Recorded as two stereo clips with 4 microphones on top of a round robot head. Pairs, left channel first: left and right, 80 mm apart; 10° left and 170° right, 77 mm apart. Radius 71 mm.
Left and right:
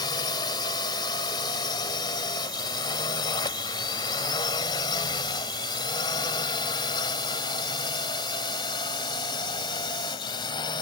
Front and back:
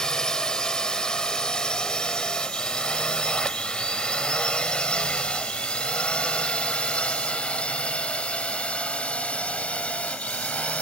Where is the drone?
85° left; by 10.8 s 80° left.